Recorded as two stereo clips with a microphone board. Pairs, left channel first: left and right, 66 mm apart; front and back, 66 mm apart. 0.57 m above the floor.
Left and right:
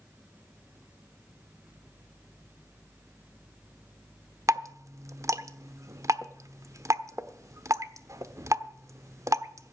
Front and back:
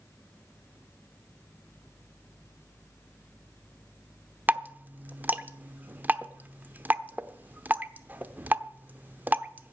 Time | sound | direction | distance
4.5 | dripping | 120° right | 0.9 m